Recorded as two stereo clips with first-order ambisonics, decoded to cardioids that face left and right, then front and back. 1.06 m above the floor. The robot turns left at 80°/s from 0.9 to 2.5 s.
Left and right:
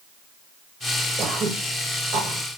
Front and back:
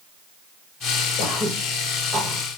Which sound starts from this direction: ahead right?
Throat clearing, at 1.2 s.